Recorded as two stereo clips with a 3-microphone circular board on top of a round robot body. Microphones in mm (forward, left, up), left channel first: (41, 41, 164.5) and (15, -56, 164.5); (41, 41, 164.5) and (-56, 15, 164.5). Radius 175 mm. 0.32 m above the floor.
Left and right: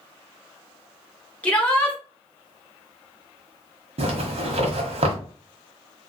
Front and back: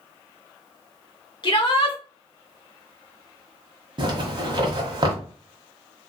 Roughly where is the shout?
Ahead.